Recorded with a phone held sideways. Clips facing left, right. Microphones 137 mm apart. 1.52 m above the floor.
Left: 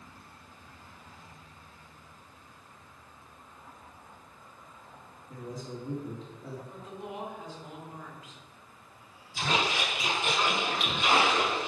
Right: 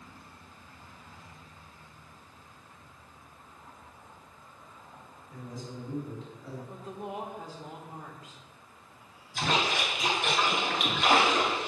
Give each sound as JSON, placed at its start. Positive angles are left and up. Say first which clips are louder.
{"t": 5.3, "sound": "a man speaking", "louder": "left 2 dB", "side_deg": 40, "distance_m": 3.5}
{"t": 6.7, "sound": "a woman speaking", "louder": "right 2 dB", "side_deg": -40, "distance_m": 1.5}
{"t": 9.3, "sound": "a splash", "louder": "right 1 dB", "side_deg": -65, "distance_m": 3.0}